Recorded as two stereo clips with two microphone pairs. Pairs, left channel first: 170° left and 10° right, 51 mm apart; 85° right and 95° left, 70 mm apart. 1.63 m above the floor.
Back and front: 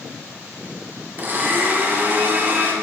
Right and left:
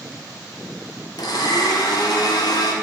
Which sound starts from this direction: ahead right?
A blender, at 1.2 s.